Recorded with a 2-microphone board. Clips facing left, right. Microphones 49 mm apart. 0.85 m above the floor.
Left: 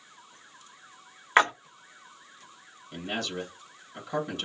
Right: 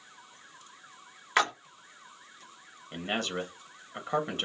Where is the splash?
25° left (ahead or behind), 0.6 m.